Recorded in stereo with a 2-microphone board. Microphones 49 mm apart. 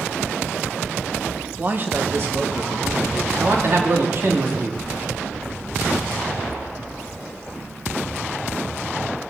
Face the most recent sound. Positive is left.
turn(degrees=-50)  # may be behind; listen again after turning